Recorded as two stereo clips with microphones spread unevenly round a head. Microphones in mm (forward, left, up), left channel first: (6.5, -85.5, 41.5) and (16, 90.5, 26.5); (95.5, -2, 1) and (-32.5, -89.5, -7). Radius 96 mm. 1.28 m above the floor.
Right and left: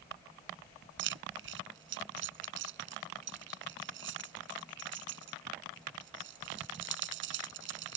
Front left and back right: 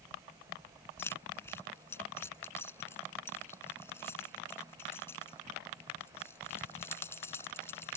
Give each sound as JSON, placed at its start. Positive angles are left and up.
{"t": 1.0, "sound": "keys jangling", "azimuth_deg": 115}